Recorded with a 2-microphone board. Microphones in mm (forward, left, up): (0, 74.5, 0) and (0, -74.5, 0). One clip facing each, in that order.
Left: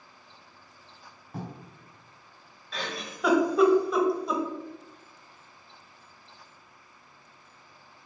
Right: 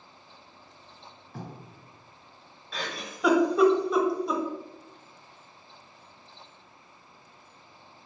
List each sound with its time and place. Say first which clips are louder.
1.3 s writing: left 3 dB; 40° left (ahead or behind), 2.0 m
2.7 s a giggle: left 1 dB; centre (ahead or behind), 0.6 m